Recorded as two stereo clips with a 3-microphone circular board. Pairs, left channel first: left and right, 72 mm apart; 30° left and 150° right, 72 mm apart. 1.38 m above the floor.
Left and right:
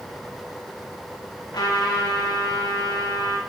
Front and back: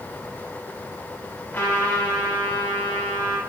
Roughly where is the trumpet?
Left.